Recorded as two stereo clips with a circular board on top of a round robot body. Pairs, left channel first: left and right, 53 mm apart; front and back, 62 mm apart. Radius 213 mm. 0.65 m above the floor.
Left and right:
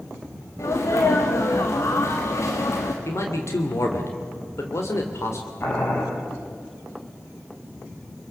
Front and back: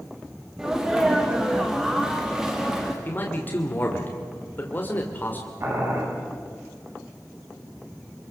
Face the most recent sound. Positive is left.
turn(degrees=135)